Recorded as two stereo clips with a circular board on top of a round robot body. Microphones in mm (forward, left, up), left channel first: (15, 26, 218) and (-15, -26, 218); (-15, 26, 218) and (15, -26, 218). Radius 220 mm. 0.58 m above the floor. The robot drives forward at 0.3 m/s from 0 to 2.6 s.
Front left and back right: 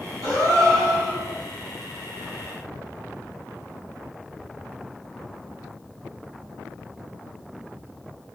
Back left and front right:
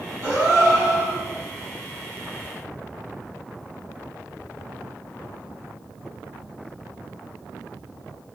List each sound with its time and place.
0.2 s a gasp: 95° right, 1.4 m; by 1.2 s 105° right, 1.5 m